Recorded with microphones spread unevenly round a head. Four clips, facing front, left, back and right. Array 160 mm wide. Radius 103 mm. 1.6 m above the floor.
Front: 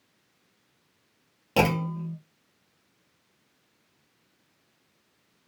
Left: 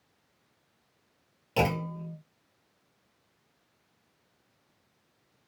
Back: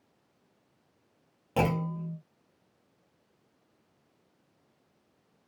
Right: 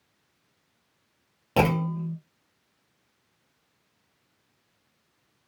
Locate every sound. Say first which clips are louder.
1.6 s a clunk: right 5 dB, front 4 dB; 55° right, 0.6 m